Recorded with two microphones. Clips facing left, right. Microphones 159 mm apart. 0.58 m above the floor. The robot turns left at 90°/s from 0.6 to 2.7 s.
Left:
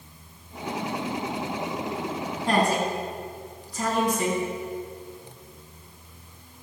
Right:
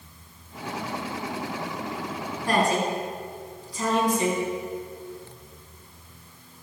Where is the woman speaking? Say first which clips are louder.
Even; 20° left (ahead or behind), 4.5 m; by 4.4 s 45° left (ahead or behind), 4.5 m.